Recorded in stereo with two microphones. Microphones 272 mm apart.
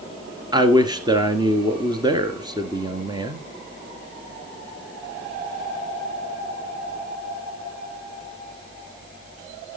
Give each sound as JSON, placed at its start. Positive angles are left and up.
{"t": 0.5, "sound": "a man speaking", "side_deg": -15, "distance_m": 1.6}